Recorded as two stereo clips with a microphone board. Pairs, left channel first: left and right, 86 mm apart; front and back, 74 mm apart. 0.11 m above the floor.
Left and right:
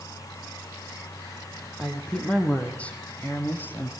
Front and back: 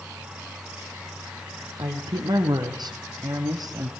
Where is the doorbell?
I don't hear a doorbell.